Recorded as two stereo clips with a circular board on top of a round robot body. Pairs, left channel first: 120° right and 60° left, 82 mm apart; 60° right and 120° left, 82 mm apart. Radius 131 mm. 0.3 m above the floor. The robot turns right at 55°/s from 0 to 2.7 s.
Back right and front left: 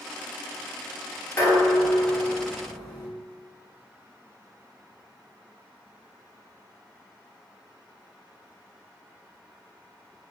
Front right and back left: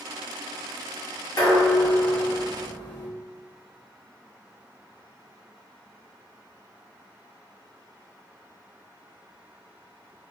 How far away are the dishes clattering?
About 1.3 m.